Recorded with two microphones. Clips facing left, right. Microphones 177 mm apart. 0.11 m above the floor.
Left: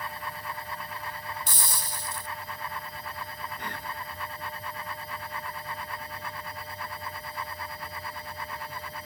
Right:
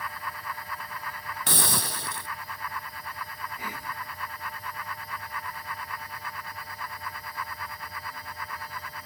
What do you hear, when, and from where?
1.5 s a hiss: 70° right (ahead or behind)
3.6 s whispering: 5° right (ahead or behind)